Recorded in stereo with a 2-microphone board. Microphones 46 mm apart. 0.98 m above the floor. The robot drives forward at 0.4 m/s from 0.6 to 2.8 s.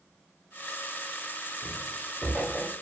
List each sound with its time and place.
1.6 s footsteps: 30° right (ahead or behind), 1.9 m; by 2.7 s 15° right (ahead or behind), 2.5 m